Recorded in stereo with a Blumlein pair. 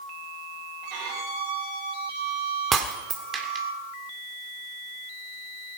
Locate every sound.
0.8 s a violin: 40° right, 5.5 m
2.7 s breaking glass: 20° right, 2 m